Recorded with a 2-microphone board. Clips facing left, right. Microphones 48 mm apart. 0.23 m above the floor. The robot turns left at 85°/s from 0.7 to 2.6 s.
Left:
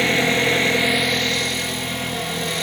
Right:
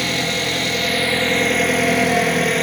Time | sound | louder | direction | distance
0.0 | an engine running | left 3 dB | 30° left | 0.8 m